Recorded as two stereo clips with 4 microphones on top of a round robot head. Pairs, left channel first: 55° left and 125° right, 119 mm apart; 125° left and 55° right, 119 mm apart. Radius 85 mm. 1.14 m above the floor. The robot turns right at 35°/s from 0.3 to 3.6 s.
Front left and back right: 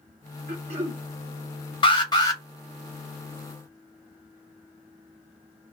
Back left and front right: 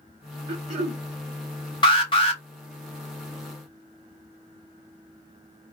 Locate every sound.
0.5 s throat clearing: 100° right, 0.8 m; by 1.0 s 80° right, 0.8 m
1.8 s an alarm: 90° left, 1.2 m; by 2.4 s 110° left, 1.2 m